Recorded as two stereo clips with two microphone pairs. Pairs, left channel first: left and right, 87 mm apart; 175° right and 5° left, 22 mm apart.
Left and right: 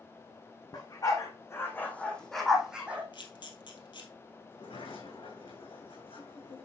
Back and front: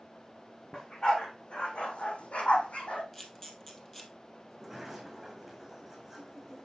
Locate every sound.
0.7 s a dog barking: 130° left, 2.5 m; by 3.0 s 165° right, 2 m
3.1 s a camera shutter: 110° left, 2 m
4.5 s a sliding door: 80° left, 3.5 m